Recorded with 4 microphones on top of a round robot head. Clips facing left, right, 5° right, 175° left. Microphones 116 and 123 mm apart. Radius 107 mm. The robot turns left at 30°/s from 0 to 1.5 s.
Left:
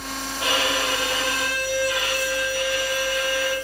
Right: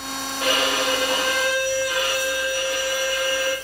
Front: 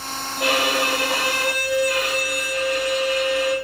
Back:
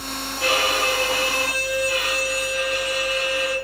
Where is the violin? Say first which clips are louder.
Right 2 dB, front 1 dB; 5° left, 1.0 m; by 3.5 s 25° right, 1.0 m.